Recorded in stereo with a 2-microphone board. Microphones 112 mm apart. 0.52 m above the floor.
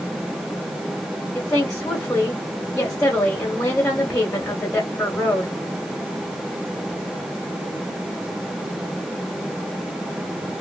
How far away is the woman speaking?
About 1.4 m.